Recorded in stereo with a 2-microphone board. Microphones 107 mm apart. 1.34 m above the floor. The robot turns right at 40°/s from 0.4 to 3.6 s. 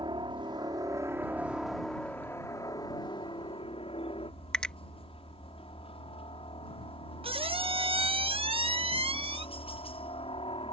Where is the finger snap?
10° left (ahead or behind).